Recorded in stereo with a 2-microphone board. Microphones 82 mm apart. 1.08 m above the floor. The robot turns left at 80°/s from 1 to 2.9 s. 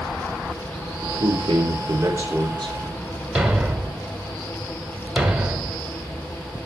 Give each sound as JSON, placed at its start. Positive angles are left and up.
{"t": 1.0, "sound": "a man speaking", "azimuth_deg": -60, "distance_m": 3.5}
{"t": 3.4, "sound": "a thud", "side_deg": -5, "distance_m": 1.7}